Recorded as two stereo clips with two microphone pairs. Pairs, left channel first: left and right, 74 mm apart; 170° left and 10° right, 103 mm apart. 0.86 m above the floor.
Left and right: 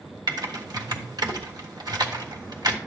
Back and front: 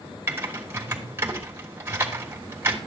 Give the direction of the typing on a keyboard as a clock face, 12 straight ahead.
3 o'clock.